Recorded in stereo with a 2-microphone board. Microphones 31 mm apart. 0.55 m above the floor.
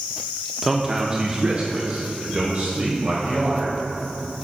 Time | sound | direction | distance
0.6 | a man speaking | 5° right (ahead or behind) | 0.6 m